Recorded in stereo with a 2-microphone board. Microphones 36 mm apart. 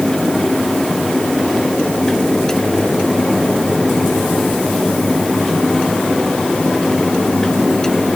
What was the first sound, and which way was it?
Only background noise.